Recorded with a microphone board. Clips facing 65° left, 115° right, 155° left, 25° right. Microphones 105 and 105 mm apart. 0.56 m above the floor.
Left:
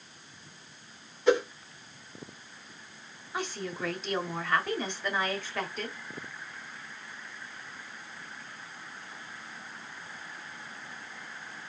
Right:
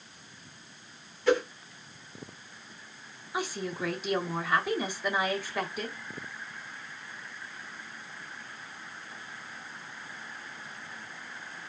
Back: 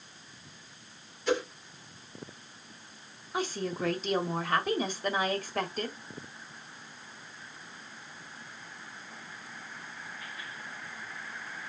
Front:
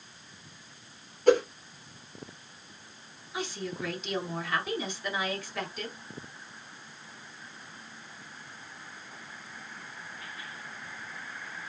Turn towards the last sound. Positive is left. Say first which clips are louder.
# right 2 dB, back 3 dB
turn(degrees=170)